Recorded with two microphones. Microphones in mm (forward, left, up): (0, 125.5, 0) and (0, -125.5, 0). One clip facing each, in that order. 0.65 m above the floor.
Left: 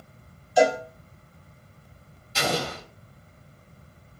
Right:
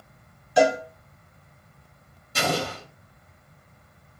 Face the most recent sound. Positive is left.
turn(degrees=-55)  # may be behind; listen again after turning